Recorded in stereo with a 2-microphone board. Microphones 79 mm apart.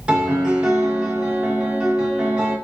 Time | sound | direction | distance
0.1 | a piano | 15° right (ahead or behind) | 1.0 m